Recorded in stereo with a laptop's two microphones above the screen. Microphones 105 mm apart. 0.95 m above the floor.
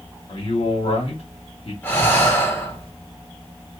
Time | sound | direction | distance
0.3 | a man speaking | 70° left (ahead or behind) | 1.7 m
1.8 | breathing | 20° left (ahead or behind) | 1.5 m